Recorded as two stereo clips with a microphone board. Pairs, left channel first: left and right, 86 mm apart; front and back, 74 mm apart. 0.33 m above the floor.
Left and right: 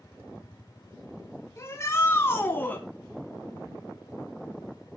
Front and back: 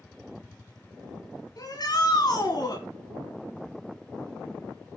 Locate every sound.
1.6 s a shout: 30° left, 4 m; by 2.8 s 20° left, 3 m